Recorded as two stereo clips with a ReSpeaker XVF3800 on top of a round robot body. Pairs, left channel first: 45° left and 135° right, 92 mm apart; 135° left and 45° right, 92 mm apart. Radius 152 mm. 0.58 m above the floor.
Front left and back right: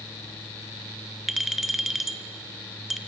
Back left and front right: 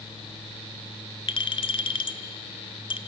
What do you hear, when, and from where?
1.3 s a clink: 140° left, 1.1 m